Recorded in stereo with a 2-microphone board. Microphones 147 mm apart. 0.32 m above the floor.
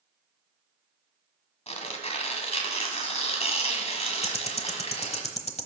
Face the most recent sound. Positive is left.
turn(degrees=45)  # may be behind; listen again after turning